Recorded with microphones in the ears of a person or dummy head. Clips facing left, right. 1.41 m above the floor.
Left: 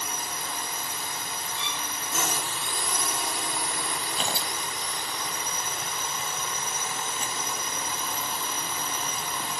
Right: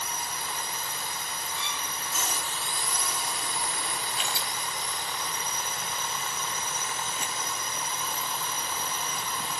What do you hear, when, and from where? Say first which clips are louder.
0.0 s a drone: left 1 dB; 50° left (ahead or behind)
1.6 s a violin: left 1 dB; 45° right (ahead or behind)
4.2 s tearing paper: left 3 dB; 35° left (ahead or behind)